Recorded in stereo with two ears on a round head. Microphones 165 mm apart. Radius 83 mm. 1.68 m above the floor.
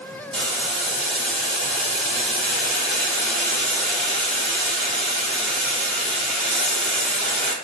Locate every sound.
0.3 s boiling: 5° left (ahead or behind), 1.9 m